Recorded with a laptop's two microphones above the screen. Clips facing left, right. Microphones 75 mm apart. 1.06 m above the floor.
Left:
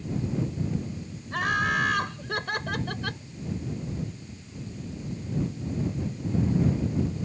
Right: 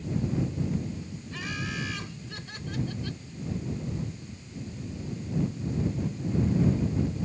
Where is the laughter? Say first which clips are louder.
Left 11 dB; 60° left (ahead or behind); by 3.2 s 75° left (ahead or behind).